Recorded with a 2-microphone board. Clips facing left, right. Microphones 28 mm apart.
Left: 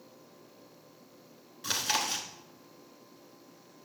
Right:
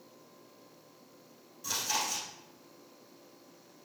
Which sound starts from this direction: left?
Chewing, at 1.6 s.